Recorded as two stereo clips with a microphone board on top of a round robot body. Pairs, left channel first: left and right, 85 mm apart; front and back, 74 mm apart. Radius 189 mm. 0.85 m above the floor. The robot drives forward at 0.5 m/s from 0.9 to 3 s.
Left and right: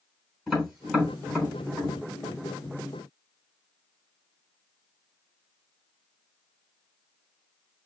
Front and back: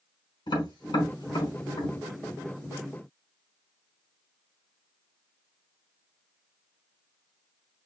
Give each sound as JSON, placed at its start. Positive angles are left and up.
{"t": 0.5, "sound": "tapping", "azimuth_deg": 5, "distance_m": 4.0}